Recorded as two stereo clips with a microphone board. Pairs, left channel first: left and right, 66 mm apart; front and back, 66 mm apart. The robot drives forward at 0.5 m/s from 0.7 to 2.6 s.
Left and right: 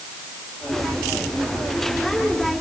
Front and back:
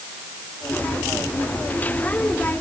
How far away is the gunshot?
No gunshot in this recording.